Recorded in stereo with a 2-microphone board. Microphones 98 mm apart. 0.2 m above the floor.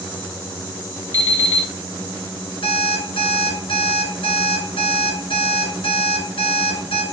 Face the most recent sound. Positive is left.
turn(degrees=60)  # may be behind; listen again after turning